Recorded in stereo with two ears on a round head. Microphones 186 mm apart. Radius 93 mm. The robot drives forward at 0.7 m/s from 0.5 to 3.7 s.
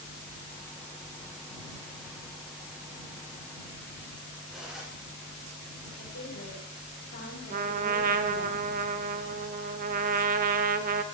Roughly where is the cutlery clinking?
Centre.